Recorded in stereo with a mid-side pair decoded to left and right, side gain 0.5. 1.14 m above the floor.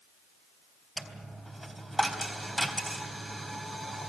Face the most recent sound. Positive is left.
turn(degrees=-5)